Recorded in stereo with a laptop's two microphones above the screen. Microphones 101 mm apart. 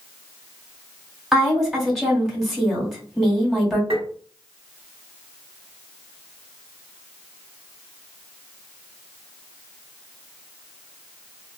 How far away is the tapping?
About 1.0 m.